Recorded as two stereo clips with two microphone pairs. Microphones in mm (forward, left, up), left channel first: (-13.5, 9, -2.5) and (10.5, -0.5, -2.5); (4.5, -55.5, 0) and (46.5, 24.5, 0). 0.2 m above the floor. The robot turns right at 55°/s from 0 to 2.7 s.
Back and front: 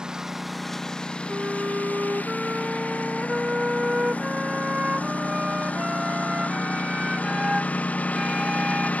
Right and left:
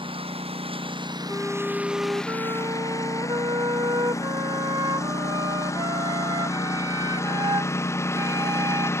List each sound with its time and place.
0.0 s a lawn mower: 40° left; by 9.0 s straight behind
1.3 s a flute: 50° right; by 8.9 s 30° left